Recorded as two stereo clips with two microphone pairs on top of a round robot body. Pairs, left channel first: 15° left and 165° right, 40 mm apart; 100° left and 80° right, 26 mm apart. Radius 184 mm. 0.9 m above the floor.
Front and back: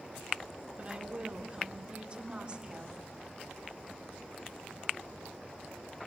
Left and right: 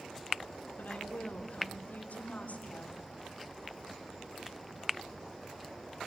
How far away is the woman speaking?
About 3 m.